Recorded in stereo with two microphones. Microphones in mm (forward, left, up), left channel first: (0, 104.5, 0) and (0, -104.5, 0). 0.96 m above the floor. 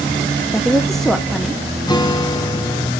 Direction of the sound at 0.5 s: Centre (ahead or behind).